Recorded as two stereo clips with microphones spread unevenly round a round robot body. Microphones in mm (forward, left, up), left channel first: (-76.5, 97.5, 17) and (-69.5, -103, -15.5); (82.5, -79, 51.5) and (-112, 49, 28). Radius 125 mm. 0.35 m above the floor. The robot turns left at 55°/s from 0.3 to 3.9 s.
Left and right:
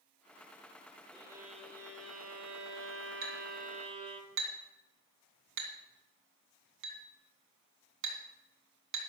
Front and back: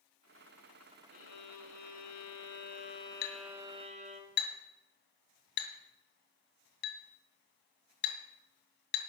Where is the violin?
5° left, 2 m; by 4.2 s 150° right, 2 m.